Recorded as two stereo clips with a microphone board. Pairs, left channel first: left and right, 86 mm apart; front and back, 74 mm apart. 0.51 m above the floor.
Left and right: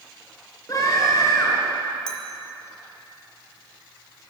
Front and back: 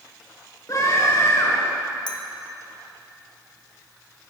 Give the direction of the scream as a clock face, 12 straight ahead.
11 o'clock.